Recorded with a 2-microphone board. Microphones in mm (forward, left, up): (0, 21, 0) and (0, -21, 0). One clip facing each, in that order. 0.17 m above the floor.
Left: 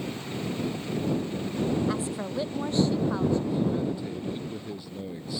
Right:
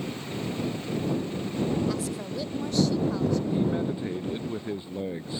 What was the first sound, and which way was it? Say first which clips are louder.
A woman speaking: left 1 dB; 30° left (ahead or behind).